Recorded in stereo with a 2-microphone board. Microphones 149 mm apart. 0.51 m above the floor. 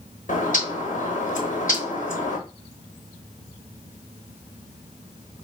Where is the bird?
60° left (ahead or behind), 1.0 m.